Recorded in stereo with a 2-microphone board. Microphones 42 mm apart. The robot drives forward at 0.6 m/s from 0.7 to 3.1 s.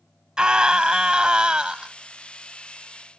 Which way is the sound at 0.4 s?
20° right (ahead or behind).